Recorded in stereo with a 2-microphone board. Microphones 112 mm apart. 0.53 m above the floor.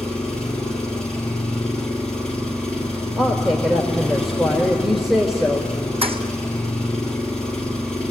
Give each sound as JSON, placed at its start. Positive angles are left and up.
{"t": 0.0, "sound": "an engine running", "side_deg": 10, "distance_m": 3.5}
{"t": 3.2, "sound": "a woman speaking", "side_deg": -5, "distance_m": 1.6}
{"t": 6.0, "sound": "a thud", "side_deg": -60, "distance_m": 1.9}